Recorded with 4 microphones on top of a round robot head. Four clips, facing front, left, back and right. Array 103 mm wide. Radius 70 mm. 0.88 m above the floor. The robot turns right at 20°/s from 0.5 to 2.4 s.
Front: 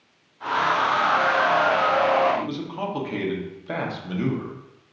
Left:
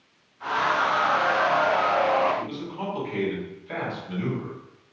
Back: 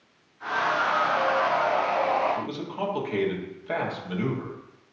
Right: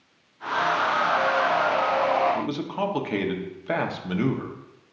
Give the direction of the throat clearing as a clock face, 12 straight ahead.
No throat clearing in this recording.